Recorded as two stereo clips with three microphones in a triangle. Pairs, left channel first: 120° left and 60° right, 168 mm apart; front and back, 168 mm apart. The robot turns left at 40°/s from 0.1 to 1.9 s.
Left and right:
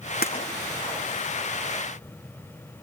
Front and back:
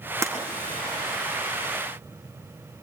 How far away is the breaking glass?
About 4 m.